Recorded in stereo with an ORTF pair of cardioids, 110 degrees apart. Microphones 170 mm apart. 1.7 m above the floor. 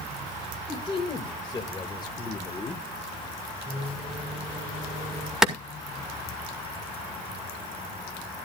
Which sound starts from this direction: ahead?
A clap, at 5.4 s.